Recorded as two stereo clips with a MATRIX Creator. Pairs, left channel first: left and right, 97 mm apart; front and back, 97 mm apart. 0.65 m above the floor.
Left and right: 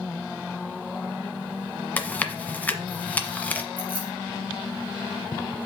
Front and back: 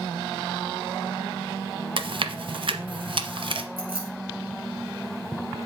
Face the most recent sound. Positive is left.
turn(degrees=165)